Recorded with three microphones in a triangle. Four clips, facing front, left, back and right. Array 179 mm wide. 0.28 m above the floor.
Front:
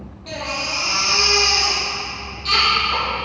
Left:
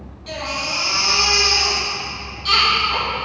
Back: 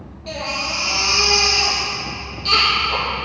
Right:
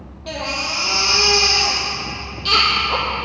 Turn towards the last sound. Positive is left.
turn(degrees=-95)